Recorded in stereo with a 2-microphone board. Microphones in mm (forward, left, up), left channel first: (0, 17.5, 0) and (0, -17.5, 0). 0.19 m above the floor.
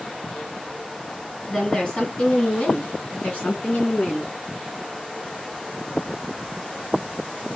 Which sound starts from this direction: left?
A woman speaking, at 1.5 s.